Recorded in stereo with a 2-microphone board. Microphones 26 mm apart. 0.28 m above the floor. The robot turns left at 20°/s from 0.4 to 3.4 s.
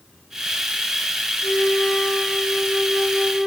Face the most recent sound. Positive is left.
turn(degrees=5)